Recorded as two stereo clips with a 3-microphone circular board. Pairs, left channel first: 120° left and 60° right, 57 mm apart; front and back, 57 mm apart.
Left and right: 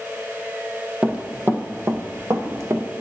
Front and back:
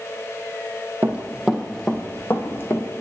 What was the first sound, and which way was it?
Running footsteps, 130° right.